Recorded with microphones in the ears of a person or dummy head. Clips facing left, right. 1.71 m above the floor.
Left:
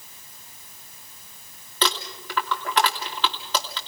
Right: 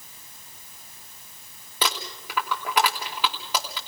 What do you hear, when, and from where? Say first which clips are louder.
1.8 s crumpling: left 3 dB; 10° right (ahead or behind), 2.5 m